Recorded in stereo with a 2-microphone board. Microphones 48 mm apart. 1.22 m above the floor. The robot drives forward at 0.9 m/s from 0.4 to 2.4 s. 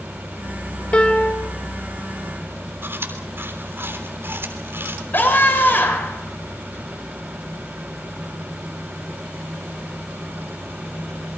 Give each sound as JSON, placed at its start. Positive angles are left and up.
{"t": 0.9, "sound": "a piano", "side_deg": 25, "distance_m": 2.5}
{"t": 2.8, "sound": "chewing", "side_deg": -55, "distance_m": 3.5}
{"t": 5.1, "sound": "a scream", "side_deg": 45, "distance_m": 6.5}